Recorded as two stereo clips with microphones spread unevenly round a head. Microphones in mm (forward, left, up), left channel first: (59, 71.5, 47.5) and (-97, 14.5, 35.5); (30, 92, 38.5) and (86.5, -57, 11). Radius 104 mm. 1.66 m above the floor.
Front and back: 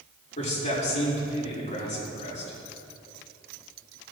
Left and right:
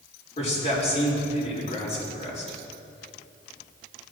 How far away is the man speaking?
About 4 m.